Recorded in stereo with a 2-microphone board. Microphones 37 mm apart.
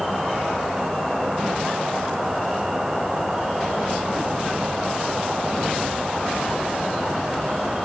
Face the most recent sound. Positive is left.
turn(degrees=-10)  # may be behind; listen again after turning